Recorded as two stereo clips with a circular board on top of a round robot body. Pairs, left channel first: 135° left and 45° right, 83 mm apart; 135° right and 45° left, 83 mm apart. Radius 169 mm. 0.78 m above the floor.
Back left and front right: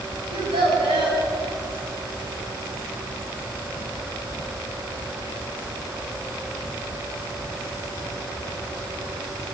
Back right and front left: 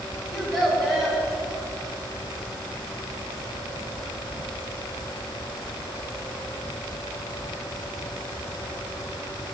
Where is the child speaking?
40° right, 4 m.